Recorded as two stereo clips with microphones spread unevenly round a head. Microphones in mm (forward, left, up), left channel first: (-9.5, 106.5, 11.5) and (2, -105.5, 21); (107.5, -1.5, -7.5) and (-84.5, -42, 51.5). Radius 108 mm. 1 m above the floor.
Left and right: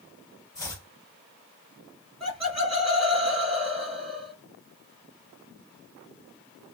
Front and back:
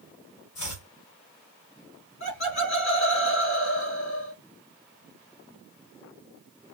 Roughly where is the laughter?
Ahead.